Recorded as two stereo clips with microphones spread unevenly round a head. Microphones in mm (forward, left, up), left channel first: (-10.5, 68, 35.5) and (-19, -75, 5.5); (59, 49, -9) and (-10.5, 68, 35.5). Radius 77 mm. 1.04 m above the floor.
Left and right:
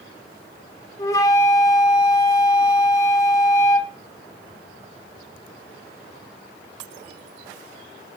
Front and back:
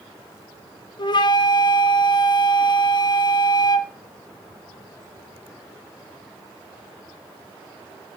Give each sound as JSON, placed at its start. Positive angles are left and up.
{"t": 1.0, "sound": "a flute", "azimuth_deg": 20, "distance_m": 0.6}